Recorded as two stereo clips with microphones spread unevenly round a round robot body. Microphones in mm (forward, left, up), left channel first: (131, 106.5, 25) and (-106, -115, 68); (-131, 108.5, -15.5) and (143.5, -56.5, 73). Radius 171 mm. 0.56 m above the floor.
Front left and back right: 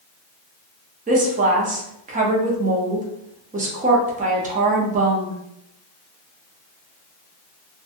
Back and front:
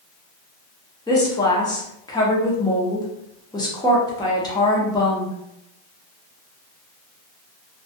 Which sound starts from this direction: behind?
A woman speaking, at 1.1 s.